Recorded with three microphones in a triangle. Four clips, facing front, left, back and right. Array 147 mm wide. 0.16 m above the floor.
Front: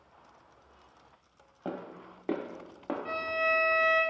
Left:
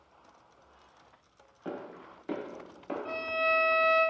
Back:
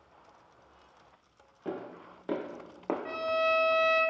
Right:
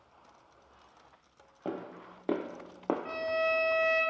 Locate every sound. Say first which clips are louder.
1.6 s footsteps: right 2 dB, even; 50° right, 0.9 m; by 3.0 s 105° right, 0.5 m
3.0 s a violin: left 3 dB, back 2 dB; 5° right, 1.3 m